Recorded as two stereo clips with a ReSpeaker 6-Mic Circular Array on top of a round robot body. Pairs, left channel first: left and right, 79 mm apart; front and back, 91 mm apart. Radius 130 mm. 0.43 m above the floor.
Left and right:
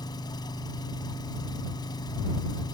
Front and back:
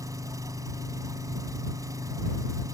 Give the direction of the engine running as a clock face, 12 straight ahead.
8 o'clock.